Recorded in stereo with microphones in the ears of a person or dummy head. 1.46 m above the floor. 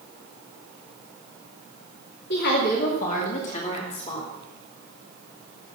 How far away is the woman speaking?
About 2 m.